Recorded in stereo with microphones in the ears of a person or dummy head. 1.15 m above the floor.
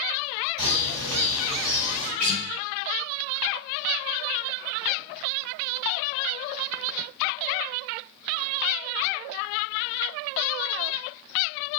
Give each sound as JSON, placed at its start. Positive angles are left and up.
{"t": 0.6, "sound": "a bird", "side_deg": -70, "distance_m": 1.5}
{"t": 2.2, "sound": "a guitar", "side_deg": -40, "distance_m": 1.4}